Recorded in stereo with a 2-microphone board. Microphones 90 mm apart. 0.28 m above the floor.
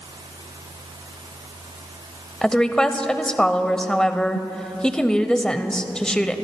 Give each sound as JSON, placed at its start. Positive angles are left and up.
{"t": 2.4, "sound": "a woman speaking", "side_deg": 10, "distance_m": 0.9}